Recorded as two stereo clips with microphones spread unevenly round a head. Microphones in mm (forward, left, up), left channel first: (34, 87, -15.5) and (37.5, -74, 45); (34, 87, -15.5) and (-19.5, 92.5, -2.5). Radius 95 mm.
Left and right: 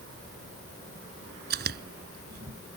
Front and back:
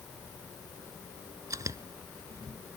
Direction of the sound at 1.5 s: 130° right.